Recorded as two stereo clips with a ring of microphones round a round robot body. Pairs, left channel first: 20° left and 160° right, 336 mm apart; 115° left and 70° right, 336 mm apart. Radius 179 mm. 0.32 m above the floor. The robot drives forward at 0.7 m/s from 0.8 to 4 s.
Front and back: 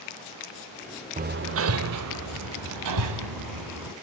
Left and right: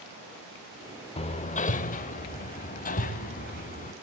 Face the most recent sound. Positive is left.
turn(degrees=180)